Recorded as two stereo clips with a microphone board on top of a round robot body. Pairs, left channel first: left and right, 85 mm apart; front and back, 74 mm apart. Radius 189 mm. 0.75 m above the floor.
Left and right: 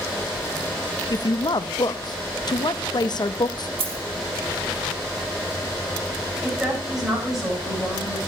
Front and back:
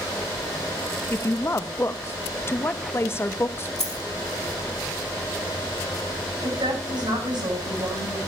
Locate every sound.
1.1 s a woman speaking: 55° left, 1.0 m
3.8 s a dropped coin: 85° right, 3.5 m
6.4 s a woman speaking: 175° right, 9 m